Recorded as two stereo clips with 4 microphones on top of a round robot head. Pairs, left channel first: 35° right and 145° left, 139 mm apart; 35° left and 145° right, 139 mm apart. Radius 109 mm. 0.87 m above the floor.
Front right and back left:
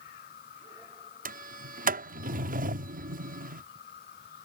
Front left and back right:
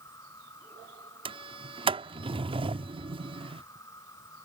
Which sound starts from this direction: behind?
A sliding door, at 1.2 s.